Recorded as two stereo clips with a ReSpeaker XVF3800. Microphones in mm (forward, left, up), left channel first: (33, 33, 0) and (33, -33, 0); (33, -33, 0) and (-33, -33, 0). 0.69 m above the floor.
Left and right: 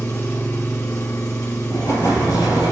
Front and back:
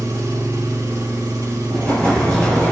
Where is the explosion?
75° left, 6.5 m.